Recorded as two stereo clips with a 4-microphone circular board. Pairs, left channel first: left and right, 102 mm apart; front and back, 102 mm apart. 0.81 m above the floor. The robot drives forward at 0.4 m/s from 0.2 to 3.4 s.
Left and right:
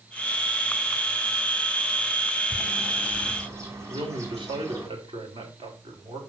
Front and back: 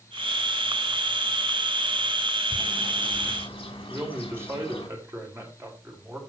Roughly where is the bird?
Ahead right.